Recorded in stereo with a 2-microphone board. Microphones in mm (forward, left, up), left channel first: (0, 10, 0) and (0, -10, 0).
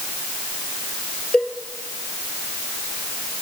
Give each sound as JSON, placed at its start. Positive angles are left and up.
{"t": 1.3, "sound": "a cowbell", "side_deg": 60, "distance_m": 2.5}